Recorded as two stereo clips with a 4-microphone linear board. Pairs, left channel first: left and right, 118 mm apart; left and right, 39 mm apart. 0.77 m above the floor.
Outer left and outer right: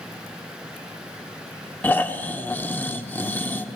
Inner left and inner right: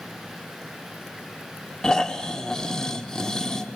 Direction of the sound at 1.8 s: 15° left (ahead or behind).